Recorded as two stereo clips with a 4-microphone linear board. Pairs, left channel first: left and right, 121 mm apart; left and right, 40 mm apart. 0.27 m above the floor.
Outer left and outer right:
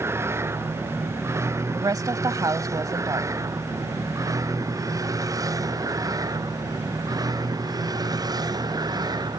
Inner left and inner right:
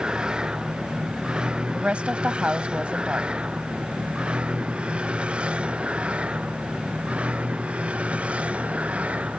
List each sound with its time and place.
0.0 s a vehicle: 20° right (ahead or behind); by 9.4 s 35° right (ahead or behind)
1.7 s a woman speaking: 30° right (ahead or behind)